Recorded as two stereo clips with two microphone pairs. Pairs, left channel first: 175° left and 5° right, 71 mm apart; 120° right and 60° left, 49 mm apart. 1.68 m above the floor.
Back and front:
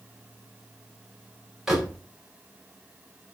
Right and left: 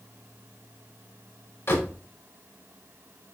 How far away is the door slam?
About 5 m.